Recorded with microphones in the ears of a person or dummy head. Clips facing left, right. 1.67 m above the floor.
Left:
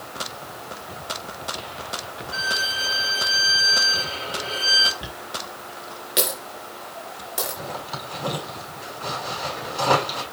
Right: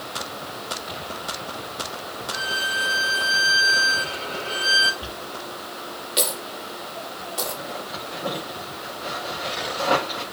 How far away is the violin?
About 2 m.